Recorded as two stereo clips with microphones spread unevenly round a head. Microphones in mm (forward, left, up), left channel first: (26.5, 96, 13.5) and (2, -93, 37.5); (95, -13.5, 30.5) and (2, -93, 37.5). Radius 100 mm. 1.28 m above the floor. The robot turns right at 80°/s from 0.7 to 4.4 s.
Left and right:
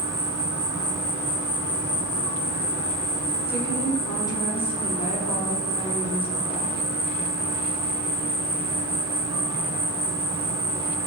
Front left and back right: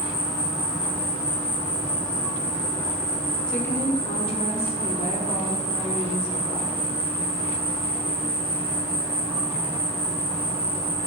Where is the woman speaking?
40° right, 0.5 m; by 6.8 s 35° left, 0.5 m.